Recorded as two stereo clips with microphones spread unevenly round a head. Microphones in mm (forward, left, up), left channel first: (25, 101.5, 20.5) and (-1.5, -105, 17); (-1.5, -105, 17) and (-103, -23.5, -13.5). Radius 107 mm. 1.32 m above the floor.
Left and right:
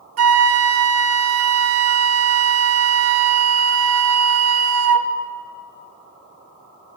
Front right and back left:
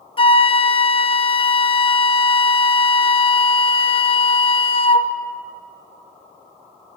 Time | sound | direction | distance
0.2 | a flute | 95° right | 0.7 m